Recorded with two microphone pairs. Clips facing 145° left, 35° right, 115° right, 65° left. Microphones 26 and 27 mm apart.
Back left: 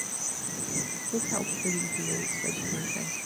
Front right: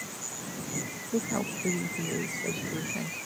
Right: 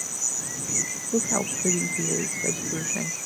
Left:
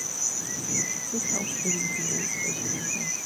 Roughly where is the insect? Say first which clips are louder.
Back left 3 dB, even; behind left.